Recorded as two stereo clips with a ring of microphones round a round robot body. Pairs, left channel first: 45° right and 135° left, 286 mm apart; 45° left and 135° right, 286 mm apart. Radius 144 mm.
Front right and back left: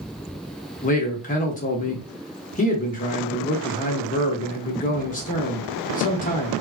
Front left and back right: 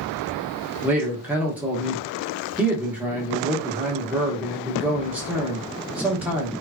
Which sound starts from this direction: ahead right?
A man speaking, at 0.8 s.